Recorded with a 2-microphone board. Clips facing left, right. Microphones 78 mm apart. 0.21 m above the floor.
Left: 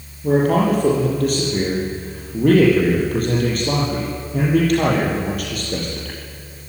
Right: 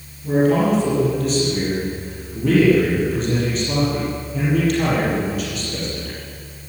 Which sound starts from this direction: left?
A man speaking, at 0.2 s.